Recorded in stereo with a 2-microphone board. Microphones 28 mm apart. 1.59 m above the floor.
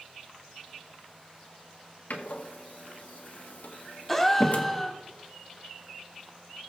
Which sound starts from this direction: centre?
A gasp, at 4.1 s.